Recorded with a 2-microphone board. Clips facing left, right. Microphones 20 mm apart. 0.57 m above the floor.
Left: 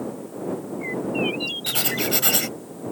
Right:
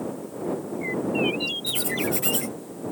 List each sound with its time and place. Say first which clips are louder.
1.7 s writing: left 2 dB; 80° left